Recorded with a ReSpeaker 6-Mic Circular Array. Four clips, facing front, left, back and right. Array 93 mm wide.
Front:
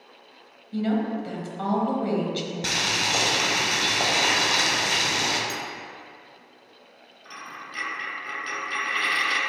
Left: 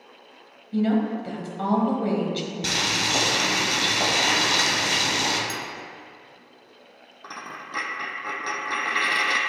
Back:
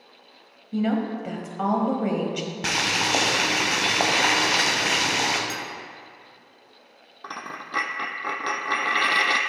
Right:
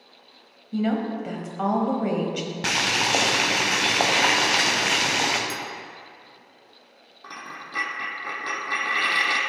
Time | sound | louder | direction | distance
0.7 | a woman speaking | left 2 dB, back 1 dB | 140° right | 1.2 m
2.6 | boiling | right 4 dB, back 5 dB | 125° right | 1.1 m
5.5 | a clink | even, even | 170° left | 0.6 m
7.2 | a dropped coin | left 1 dB, back 5 dB | 170° left | 0.9 m